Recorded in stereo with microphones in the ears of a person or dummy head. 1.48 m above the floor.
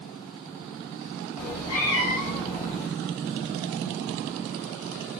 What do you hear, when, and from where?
1.4 s a cat meowing: 40° left (ahead or behind), 0.9 m